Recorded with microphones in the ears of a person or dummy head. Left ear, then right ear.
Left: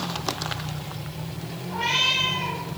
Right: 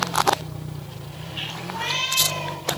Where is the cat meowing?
10° right (ahead or behind), 2 m.